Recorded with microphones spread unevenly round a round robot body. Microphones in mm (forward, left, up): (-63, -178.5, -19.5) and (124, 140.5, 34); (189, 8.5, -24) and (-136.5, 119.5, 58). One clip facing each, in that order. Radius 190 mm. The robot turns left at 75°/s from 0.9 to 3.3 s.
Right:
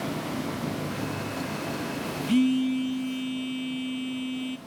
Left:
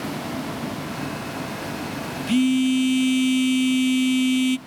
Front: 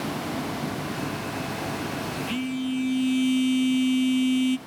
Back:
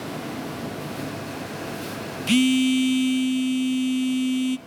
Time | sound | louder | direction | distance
2.3 | a phone buzzing | left 4 dB, back 10 dB | 145° left | 0.6 m